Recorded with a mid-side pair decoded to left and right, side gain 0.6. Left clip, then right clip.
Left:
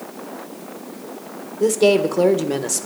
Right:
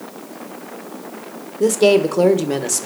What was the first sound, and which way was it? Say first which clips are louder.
A woman speaking: right 2 dB; 10° right.